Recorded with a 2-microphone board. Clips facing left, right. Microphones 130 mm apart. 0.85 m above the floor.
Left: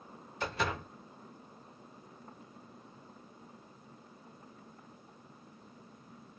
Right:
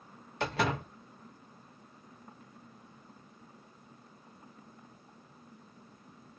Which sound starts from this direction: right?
A door slam, at 0.4 s.